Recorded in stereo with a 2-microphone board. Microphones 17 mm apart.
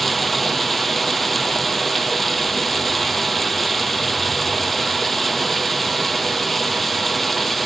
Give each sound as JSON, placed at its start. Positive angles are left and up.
{"t": 0.0, "sound": "running water", "side_deg": 10, "distance_m": 1.4}